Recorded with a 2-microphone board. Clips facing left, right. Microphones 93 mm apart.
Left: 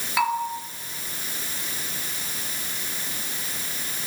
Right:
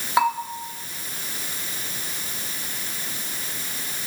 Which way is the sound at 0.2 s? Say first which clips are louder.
Right 2 dB; 30° right (ahead or behind).